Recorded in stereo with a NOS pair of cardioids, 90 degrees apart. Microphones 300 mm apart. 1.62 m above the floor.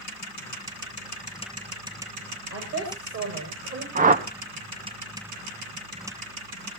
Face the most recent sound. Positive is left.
turn(degrees=-25)